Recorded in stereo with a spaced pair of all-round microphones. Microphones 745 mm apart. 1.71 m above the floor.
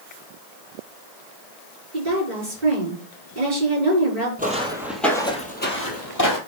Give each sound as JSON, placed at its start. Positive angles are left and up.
{"t": 1.9, "sound": "a woman speaking", "side_deg": -70, "distance_m": 5.5}
{"t": 4.4, "sound": "footsteps", "side_deg": -10, "distance_m": 2.0}